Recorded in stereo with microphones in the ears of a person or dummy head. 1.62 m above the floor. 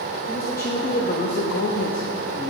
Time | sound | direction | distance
0.3 | a man speaking | 5° left (ahead or behind) | 1.0 m